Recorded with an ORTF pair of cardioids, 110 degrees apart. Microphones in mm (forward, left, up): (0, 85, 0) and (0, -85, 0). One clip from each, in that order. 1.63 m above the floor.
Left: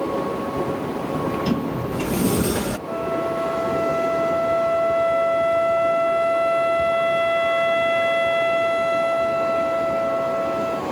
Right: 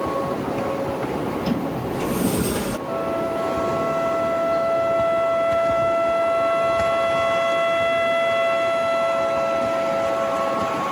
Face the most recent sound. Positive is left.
turn(degrees=10)